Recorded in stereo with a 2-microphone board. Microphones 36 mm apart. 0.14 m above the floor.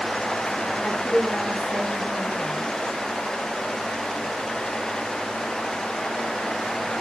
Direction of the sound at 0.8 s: 5° left (ahead or behind).